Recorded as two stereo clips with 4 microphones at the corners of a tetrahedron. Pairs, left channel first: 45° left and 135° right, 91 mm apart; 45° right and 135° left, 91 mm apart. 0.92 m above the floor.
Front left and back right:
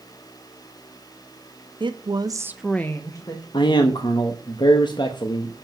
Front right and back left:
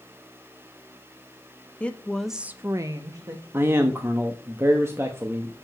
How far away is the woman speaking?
About 1.2 m.